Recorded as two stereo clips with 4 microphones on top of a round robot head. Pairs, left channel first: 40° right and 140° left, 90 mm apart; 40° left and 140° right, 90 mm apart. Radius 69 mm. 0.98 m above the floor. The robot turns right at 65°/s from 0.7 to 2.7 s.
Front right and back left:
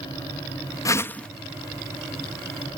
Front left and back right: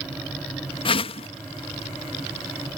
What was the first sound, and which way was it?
A whoosh, 15° left.